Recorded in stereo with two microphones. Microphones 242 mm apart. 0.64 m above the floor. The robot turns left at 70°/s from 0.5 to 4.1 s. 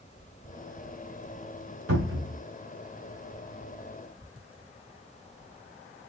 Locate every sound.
1.9 s a cupboard door: 70° right (ahead or behind), 1.5 m; by 2.4 s 35° right (ahead or behind), 1.5 m